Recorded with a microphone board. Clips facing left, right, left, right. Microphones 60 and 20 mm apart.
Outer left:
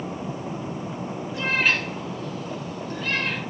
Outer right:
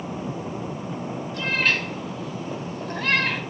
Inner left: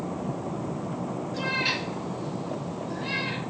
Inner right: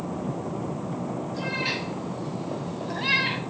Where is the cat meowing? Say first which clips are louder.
Outer left 1 dB, inner left 2 dB; 15° left (ahead or behind), 2.5 m; by 3.4 s 80° right, 1.4 m.